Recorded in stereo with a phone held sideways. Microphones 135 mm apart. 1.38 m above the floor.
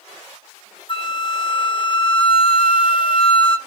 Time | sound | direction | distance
0.9 | a flute | 40° left (ahead or behind) | 1.1 m